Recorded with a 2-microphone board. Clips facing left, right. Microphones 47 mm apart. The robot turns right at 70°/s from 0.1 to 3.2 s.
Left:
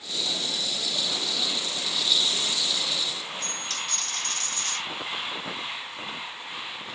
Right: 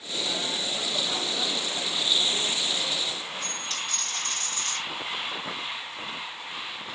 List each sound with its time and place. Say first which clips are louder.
3.4 s a dropped coin: even; 65° left (ahead or behind), 1.6 m